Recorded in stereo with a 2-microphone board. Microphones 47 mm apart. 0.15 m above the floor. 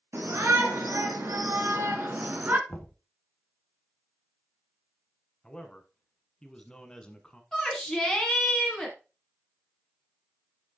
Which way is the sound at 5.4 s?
20° left (ahead or behind).